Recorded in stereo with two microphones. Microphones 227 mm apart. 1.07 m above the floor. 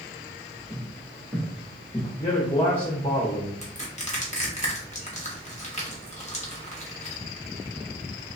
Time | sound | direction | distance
0.7 | footsteps | 10° right (ahead or behind) | 1.8 m
2.2 | a man speaking | 25° left (ahead or behind) | 0.9 m
3.6 | crushing | 30° left (ahead or behind) | 1.0 m